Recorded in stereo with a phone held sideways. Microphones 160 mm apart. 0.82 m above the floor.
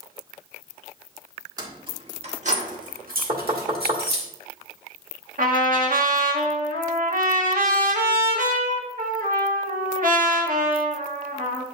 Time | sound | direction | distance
1.6 | keys jangling | 25° right (ahead or behind) | 1.5 m
3.3 | knocking | 45° right (ahead or behind) | 1.8 m
5.4 | a trumpet | 60° right (ahead or behind) | 1.4 m